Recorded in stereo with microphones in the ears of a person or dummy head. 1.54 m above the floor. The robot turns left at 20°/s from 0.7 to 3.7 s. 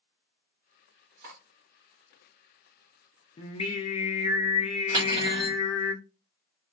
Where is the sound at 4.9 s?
30° right (ahead or behind), 1.8 m.